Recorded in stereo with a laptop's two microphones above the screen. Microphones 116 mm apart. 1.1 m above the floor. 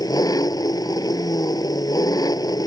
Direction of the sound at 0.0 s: 35° left (ahead or behind).